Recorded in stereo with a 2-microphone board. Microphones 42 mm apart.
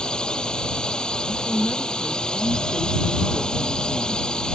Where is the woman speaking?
15° left (ahead or behind).